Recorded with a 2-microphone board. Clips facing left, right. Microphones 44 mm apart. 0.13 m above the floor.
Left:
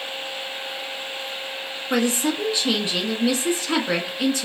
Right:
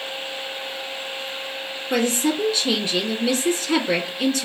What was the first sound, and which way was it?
A woman speaking, 25° left (ahead or behind).